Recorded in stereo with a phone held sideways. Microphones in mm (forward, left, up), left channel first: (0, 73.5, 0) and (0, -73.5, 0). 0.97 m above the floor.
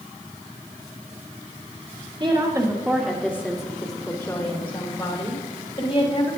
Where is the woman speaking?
35° right (ahead or behind), 1.7 m; by 6.3 s 45° left (ahead or behind), 5.5 m.